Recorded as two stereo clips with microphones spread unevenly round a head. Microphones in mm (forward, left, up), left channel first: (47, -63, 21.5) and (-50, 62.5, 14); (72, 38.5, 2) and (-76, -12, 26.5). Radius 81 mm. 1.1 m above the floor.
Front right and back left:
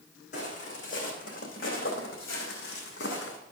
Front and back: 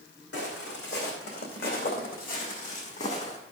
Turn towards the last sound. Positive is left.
turn(degrees=-35)